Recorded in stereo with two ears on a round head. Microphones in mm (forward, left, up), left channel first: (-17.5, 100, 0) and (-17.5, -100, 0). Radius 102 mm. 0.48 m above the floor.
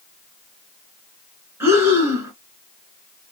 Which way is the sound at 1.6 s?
10° right (ahead or behind).